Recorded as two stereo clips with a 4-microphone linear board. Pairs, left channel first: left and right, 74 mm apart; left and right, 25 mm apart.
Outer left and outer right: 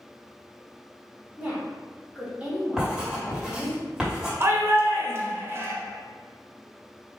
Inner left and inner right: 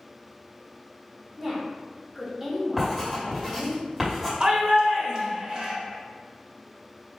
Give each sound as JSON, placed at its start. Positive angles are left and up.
{"t": 1.4, "sound": "a woman speaking", "side_deg": -20, "distance_m": 1.4}
{"t": 2.8, "sound": "writing", "side_deg": -5, "distance_m": 2.0}
{"t": 4.4, "sound": "a shout", "side_deg": -35, "distance_m": 1.1}